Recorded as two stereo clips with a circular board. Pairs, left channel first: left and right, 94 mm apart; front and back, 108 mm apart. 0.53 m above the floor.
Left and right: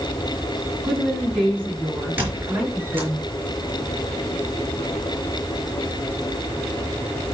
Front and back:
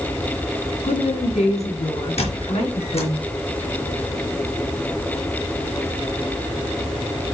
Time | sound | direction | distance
0.8 | a woman speaking | 15° right | 6 m
2.2 | a squeak | 20° right | 5 m